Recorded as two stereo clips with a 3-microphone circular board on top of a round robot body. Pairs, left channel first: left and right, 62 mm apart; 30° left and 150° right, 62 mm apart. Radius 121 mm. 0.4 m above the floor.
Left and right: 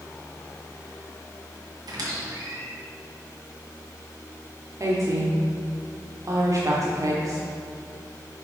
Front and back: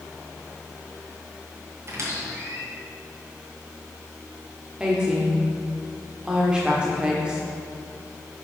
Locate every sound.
1.9 s a squeak: 105° right, 2.5 m
4.8 s a woman speaking: 75° right, 1.1 m